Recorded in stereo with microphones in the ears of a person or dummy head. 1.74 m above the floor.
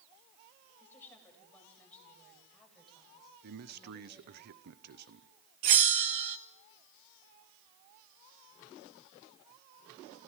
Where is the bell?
35° right (ahead or behind), 1.0 m.